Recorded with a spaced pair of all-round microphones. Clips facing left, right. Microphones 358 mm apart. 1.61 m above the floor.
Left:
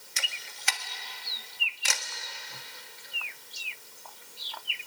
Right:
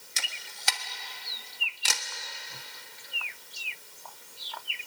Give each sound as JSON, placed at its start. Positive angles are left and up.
{"t": 0.2, "sound": "a camera shutter", "side_deg": -55, "distance_m": 1.4}